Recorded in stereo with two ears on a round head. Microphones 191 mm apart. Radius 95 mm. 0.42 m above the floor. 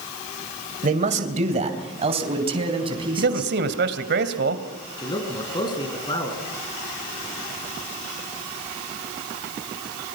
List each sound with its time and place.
0.8 s a man speaking: 40° right (ahead or behind), 2 m; by 3.5 s 25° right (ahead or behind), 4.5 m
3.2 s a man speaking: 55° right (ahead or behind), 2 m
5.0 s a man speaking: 20° left (ahead or behind), 4.5 m